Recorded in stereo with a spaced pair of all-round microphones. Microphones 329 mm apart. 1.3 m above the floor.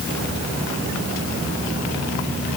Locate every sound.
Only background noise.